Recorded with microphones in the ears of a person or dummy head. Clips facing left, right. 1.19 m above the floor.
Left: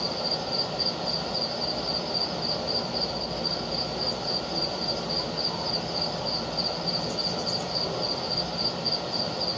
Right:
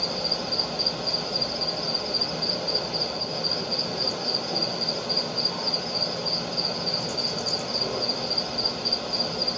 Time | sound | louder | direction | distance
0.0 | an insect | even | 30° right (ahead or behind) | 0.8 m